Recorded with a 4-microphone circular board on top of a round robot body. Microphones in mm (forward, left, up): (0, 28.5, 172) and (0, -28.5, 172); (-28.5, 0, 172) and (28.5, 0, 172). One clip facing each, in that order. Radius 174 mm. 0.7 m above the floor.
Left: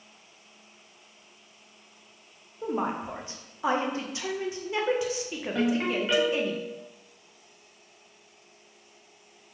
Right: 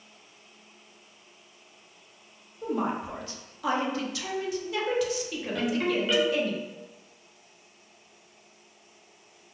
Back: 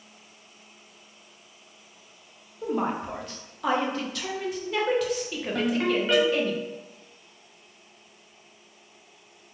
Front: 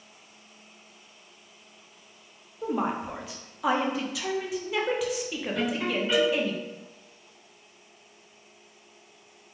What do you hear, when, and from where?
2.6 s a woman speaking: 80° left, 0.7 m
5.5 s a ringtone: 155° left, 1.2 m